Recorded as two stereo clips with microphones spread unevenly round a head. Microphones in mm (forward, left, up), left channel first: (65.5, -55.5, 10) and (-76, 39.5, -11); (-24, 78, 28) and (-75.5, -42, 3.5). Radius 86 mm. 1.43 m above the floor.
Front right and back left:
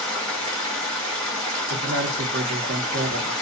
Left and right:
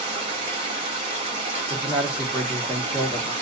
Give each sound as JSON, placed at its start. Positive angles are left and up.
{"t": 0.0, "sound": "running water", "azimuth_deg": -95, "distance_m": 1.3}
{"t": 1.7, "sound": "a man speaking", "azimuth_deg": 170, "distance_m": 1.1}